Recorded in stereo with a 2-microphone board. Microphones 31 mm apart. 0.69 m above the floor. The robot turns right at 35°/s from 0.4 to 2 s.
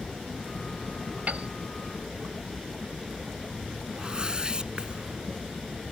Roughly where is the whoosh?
Right.